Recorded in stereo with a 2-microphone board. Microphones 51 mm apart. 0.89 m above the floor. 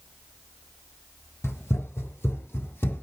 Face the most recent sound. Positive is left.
turn(degrees=45)  # may be behind; listen again after turning